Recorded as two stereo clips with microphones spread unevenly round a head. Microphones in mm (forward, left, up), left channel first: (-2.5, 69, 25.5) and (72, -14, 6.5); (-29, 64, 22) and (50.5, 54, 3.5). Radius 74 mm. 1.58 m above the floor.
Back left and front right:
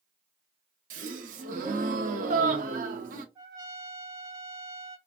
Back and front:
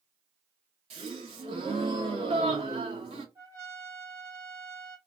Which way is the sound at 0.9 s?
55° right.